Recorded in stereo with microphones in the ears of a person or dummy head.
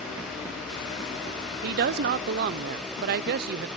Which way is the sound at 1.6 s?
55° right (ahead or behind).